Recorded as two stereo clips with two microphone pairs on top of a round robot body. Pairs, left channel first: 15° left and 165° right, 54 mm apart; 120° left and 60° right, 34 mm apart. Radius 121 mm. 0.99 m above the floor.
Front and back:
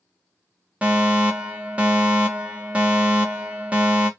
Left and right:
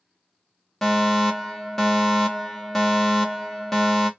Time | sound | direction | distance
0.8 | a fire alarm | 140° right | 1.2 m